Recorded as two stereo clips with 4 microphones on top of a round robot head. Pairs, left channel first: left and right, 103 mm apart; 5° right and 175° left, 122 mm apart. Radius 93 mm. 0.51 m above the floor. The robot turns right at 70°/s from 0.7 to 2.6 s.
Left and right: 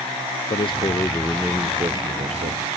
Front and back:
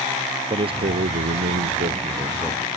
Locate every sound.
0.5 s a man speaking: 130° left; by 2.7 s 95° right